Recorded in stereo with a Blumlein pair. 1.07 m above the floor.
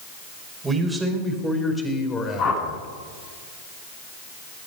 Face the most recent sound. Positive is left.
turn(degrees=35)